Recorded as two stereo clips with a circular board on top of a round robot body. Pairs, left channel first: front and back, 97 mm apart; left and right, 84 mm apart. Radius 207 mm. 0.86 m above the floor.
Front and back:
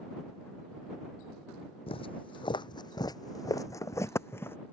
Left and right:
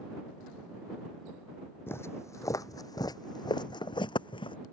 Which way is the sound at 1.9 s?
30° left.